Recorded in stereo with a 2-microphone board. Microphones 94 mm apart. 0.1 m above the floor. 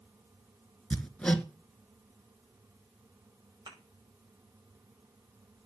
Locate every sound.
0.9 s hammering: 10° left (ahead or behind), 1.1 m
3.7 s a thud: 55° right (ahead or behind), 8.5 m